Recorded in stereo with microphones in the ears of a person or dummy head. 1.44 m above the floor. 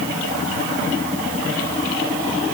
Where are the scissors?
No scissors in this recording.